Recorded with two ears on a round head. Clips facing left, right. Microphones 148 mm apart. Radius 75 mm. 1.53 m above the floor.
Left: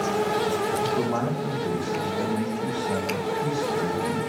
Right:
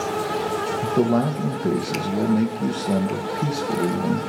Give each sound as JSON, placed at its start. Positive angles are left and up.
{"t": 0.8, "sound": "a man speaking", "side_deg": -35, "distance_m": 1.4}